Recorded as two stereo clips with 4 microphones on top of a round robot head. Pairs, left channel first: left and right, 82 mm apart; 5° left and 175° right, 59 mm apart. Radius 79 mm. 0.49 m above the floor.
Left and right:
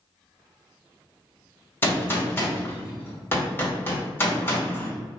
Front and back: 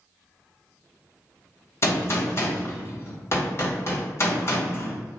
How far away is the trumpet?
I don't hear a trumpet.